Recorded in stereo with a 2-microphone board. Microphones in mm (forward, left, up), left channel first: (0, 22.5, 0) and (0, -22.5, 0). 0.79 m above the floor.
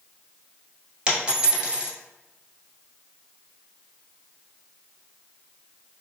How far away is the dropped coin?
About 1.3 m.